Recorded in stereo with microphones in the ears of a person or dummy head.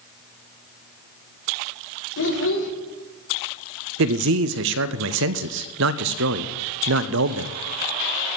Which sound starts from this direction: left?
A child speaking, at 2.2 s.